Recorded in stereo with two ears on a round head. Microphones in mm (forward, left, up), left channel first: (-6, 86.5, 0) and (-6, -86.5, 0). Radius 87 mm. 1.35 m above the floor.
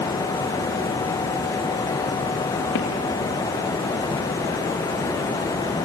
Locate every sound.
2.8 s footsteps: 65° left (ahead or behind), 3.5 m